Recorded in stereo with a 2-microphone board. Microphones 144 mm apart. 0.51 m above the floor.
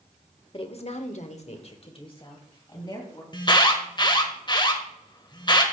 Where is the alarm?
35° left (ahead or behind), 1.4 m.